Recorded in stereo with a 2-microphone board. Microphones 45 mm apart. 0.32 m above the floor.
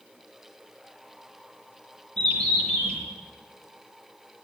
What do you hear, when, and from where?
2.2 s a bird: 20° left (ahead or behind), 5.5 m